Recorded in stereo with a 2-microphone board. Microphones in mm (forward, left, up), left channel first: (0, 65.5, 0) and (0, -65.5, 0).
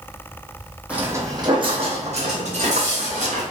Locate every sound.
0.9 s footsteps: 10° right (ahead or behind), 0.7 m; by 3.4 s 75° right (ahead or behind), 1.7 m